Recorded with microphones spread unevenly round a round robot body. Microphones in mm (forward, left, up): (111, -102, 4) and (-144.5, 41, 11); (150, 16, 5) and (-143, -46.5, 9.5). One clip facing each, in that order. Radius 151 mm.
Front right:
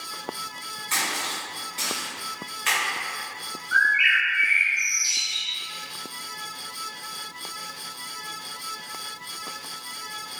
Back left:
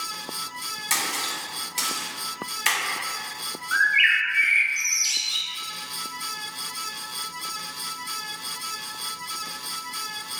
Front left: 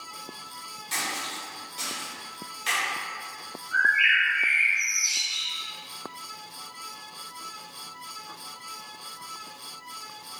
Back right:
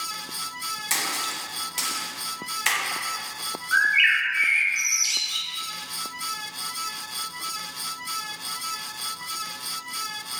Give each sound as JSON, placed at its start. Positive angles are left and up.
{"t": 0.9, "sound": "a splash", "azimuth_deg": 175, "distance_m": 0.8}
{"t": 3.7, "sound": "a bird", "azimuth_deg": -170, "distance_m": 0.6}